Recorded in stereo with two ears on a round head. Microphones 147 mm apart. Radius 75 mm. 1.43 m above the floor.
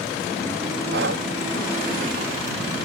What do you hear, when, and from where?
0.9 s breathing: 70° right (ahead or behind)